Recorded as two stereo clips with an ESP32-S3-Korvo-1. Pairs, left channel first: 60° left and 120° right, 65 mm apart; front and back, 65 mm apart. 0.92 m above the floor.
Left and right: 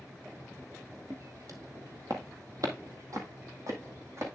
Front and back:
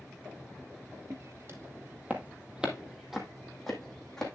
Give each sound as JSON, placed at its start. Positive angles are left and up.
{"t": 1.1, "sound": "footsteps", "azimuth_deg": -150, "distance_m": 1.6}